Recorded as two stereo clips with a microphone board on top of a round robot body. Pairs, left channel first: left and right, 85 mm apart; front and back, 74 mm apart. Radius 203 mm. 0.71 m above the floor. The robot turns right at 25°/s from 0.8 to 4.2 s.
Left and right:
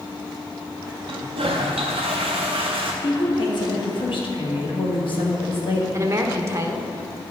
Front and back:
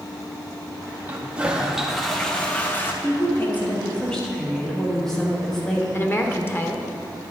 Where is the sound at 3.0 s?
55° left, 2 m; by 5.8 s 80° left, 2 m.